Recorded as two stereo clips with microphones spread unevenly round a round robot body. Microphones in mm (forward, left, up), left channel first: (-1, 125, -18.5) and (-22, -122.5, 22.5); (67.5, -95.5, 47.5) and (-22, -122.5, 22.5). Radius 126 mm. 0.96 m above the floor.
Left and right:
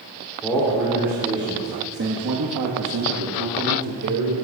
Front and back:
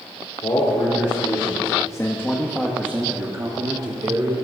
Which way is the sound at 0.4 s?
Straight ahead.